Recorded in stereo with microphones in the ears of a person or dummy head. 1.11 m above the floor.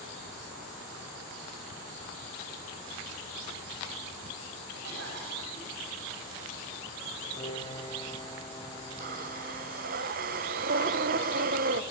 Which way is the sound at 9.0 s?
45° right (ahead or behind).